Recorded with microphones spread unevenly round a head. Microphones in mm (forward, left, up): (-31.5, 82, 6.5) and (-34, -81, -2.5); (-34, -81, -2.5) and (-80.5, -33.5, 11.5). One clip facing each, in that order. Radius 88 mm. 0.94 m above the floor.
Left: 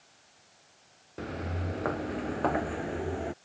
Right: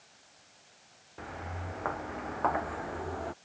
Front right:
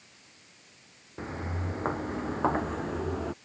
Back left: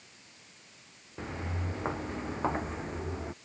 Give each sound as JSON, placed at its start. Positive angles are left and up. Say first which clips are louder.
{"t": 1.2, "sound": "footsteps", "louder": "left 6 dB, front right 2 dB", "azimuth_deg": 35}